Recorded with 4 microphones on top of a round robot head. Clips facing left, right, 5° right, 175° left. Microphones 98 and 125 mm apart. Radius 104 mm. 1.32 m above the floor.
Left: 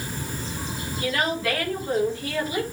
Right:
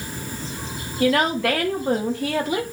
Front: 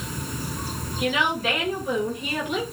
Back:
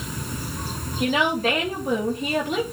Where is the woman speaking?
120° right, 2.5 m.